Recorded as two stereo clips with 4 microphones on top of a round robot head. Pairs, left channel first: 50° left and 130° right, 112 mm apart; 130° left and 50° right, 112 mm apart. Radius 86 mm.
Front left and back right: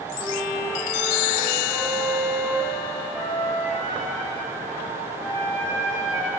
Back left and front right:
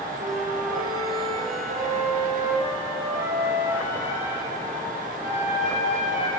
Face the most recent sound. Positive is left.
turn(degrees=-35)